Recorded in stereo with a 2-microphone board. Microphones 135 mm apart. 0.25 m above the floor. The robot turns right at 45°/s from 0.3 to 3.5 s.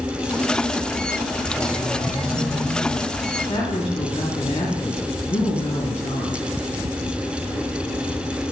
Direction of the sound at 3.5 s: 40° left (ahead or behind).